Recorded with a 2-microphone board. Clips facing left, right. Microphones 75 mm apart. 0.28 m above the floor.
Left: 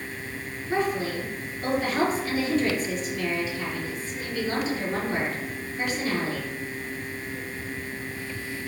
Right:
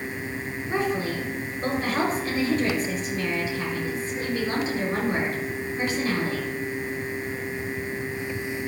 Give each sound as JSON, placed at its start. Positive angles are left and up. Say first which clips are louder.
{"t": 0.7, "sound": "a woman speaking", "louder": "even", "side_deg": -35, "distance_m": 4.0}